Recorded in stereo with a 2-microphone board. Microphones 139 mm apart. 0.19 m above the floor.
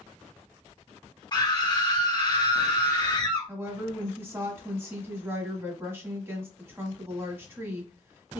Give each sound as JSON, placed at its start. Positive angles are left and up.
{"t": 1.3, "sound": "a scream", "side_deg": 35, "distance_m": 1.8}
{"t": 3.5, "sound": "a woman speaking", "side_deg": -20, "distance_m": 1.2}